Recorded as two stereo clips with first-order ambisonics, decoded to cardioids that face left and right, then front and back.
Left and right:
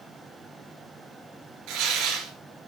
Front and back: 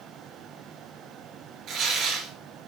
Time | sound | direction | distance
1.7 | tearing paper | 125° right | 4 m